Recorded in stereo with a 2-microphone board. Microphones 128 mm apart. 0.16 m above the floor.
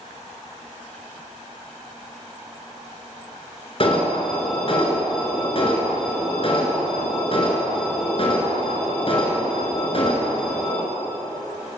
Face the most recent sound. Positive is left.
turn(degrees=45)  # may be behind; listen again after turning